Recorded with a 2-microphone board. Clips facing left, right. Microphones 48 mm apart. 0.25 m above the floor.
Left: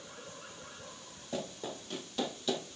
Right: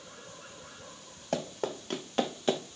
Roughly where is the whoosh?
No whoosh in this recording.